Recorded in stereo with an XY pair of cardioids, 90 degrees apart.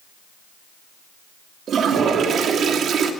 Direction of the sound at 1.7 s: 65° right.